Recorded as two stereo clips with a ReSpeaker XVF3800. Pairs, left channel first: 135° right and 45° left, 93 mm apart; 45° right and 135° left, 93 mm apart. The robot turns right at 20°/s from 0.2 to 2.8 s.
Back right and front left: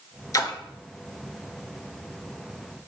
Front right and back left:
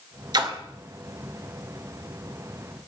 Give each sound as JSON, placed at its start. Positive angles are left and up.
{"t": 0.3, "sound": "a splash", "azimuth_deg": 175, "distance_m": 0.6}